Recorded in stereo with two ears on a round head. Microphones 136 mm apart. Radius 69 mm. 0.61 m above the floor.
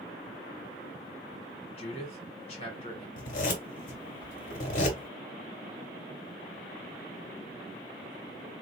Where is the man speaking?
40° left (ahead or behind), 1.8 m.